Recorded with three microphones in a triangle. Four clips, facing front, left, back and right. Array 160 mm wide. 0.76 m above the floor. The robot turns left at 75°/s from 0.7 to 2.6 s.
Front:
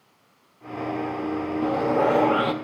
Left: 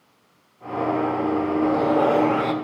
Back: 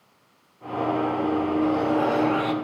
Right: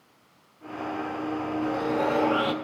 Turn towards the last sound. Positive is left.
turn(degrees=0)